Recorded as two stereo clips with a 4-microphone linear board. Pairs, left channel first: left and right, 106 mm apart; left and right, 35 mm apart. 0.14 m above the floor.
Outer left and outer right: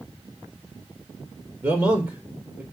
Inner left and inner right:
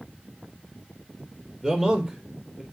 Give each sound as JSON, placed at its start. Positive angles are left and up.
{"t": 1.6, "sound": "a man speaking", "side_deg": -15, "distance_m": 3.0}